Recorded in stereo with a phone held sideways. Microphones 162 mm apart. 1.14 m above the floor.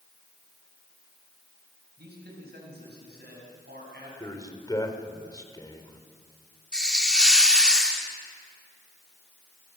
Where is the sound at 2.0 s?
85° right, 7 m; by 4.1 s 90° right, 9.5 m.